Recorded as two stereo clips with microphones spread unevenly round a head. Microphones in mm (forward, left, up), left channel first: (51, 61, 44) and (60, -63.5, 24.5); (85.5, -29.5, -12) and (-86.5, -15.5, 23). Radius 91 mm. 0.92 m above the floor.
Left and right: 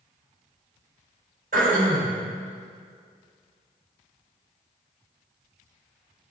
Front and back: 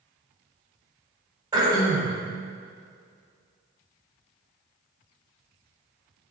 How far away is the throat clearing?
About 3.5 m.